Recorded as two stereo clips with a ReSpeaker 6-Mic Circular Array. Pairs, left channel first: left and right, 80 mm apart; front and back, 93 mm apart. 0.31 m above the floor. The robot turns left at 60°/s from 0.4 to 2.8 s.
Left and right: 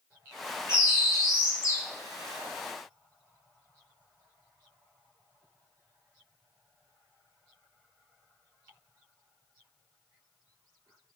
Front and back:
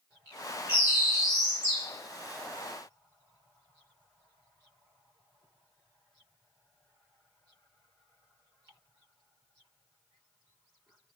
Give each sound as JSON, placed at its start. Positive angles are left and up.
{"t": 0.7, "sound": "a bird", "azimuth_deg": 125, "distance_m": 1.0}